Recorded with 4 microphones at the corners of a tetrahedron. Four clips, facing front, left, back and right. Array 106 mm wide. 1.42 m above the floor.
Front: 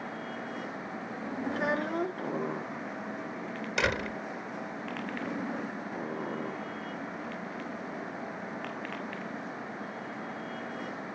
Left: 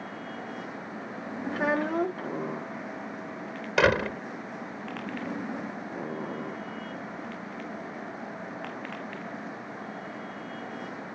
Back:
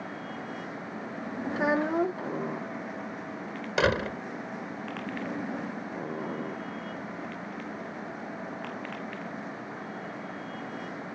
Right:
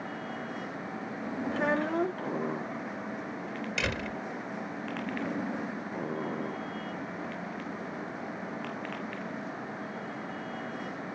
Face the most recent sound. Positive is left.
turn(degrees=110)